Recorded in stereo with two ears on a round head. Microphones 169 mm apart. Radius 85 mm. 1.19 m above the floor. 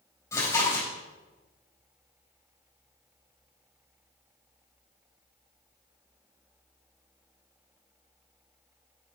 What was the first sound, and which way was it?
Chewing, 15° left (ahead or behind).